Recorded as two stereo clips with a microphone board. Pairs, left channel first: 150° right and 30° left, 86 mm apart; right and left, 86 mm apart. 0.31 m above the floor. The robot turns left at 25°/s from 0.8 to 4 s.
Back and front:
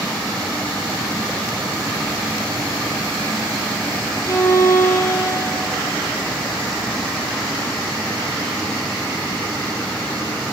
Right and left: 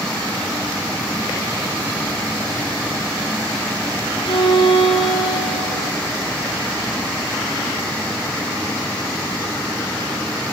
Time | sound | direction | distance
4.2 | a violin | 95° right | 6 m